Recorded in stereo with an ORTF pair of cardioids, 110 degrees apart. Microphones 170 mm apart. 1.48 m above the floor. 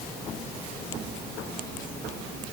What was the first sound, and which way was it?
Only background noise.